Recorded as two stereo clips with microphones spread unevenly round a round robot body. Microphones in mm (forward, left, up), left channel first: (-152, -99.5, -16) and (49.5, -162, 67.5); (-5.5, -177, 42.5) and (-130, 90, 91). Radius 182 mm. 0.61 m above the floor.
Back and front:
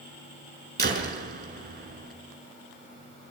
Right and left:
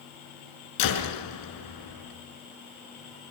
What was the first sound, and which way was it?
A door slam, 60° right.